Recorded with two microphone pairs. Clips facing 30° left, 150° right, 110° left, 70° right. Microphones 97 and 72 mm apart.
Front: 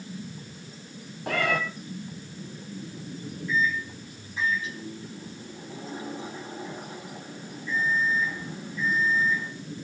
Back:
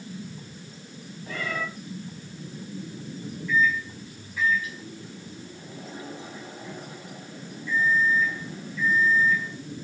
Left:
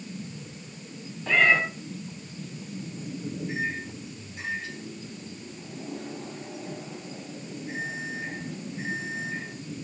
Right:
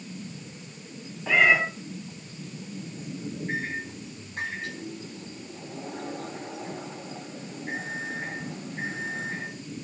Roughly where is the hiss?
No hiss in this recording.